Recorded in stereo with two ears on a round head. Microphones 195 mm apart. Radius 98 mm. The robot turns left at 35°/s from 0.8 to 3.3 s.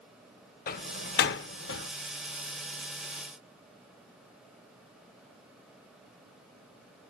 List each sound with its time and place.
0.7 s a door slam: 40° left (ahead or behind), 0.7 m; by 1.9 s 55° left (ahead or behind), 0.7 m